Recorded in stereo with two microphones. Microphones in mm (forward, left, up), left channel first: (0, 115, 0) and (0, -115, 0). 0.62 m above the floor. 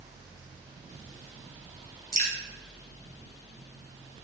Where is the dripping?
35° right (ahead or behind), 2 m.